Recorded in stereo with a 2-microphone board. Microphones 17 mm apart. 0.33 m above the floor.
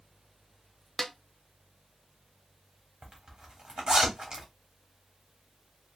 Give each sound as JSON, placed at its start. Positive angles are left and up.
{"t": 1.0, "sound": "a snare drum", "side_deg": 20, "distance_m": 0.6}
{"t": 3.0, "sound": "a zipper", "side_deg": -50, "distance_m": 1.2}